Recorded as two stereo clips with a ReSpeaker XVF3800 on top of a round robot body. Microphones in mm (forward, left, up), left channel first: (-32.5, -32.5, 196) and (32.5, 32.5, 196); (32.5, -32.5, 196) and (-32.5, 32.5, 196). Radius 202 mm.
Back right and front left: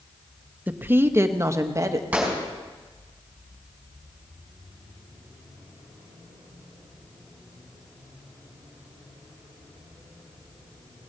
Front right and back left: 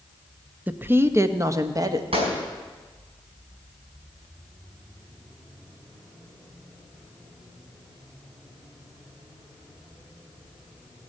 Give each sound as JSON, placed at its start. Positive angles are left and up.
{"t": 0.7, "sound": "a woman speaking", "azimuth_deg": 90, "distance_m": 0.9}
{"t": 2.1, "sound": "a gunshot", "azimuth_deg": 125, "distance_m": 4.5}